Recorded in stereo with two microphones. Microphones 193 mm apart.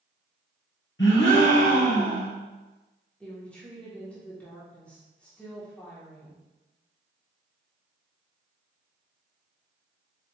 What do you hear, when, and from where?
1.0 s a gasp: 70° left (ahead or behind), 1.7 m
3.2 s a woman speaking: 5° left (ahead or behind), 1.4 m